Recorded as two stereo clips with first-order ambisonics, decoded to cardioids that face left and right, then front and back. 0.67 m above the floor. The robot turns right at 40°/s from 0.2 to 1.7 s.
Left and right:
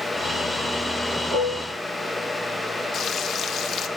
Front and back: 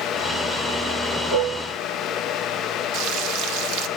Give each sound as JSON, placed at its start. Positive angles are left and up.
{"t": 1.3, "sound": "dishes clattering", "azimuth_deg": -170, "distance_m": 6.5}
{"t": 2.9, "sound": "frying", "azimuth_deg": 145, "distance_m": 0.6}